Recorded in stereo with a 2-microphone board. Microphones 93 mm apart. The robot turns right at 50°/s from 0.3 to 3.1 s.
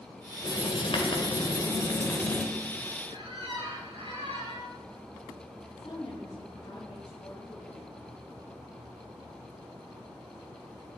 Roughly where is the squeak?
Right.